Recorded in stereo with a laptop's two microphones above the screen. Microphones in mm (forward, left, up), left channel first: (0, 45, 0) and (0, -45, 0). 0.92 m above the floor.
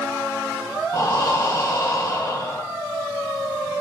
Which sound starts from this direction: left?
Breathing, at 0.9 s.